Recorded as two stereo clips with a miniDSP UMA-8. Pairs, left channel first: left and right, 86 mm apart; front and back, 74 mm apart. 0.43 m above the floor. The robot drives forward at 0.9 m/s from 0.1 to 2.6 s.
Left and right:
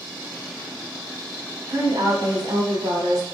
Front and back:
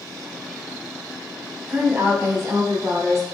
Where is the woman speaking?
115° right, 2.5 m; by 3.3 s 130° right, 3 m.